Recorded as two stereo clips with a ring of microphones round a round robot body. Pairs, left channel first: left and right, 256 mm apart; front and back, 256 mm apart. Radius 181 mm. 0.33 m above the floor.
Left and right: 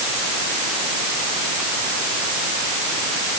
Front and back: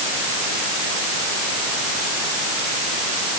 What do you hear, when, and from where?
Only background noise.